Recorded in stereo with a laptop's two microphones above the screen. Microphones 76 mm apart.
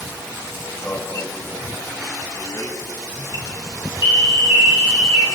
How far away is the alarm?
About 6.5 m.